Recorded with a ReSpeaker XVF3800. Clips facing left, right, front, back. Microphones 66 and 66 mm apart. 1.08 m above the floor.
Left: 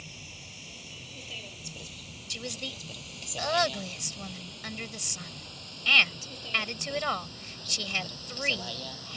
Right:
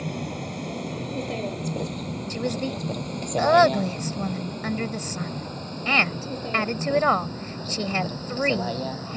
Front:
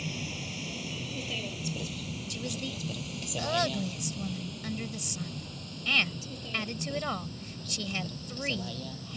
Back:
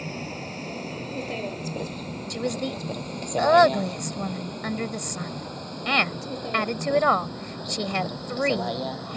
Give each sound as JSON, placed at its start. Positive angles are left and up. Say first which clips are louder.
{"t": 0.0, "sound": "a vehicle", "louder": "right 17 dB, back 4 dB", "azimuth_deg": -125}
{"t": 2.3, "sound": "a woman speaking", "louder": "right 11 dB, back 11 dB", "azimuth_deg": -145}